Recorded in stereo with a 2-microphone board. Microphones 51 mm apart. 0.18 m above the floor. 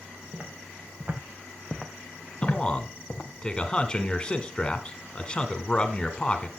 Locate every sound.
0.3 s footsteps: 50° right (ahead or behind), 3.5 m; by 3.3 s 60° left (ahead or behind), 2.5 m
2.4 s a man speaking: 20° left (ahead or behind), 1.4 m